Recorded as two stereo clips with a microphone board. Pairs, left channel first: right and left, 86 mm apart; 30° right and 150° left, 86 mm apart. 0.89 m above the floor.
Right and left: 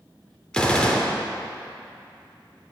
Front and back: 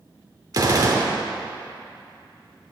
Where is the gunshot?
170° right, 0.8 m.